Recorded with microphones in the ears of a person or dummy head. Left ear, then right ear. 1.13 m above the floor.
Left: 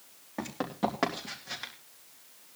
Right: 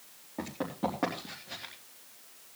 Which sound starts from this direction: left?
Running footsteps, at 0.4 s.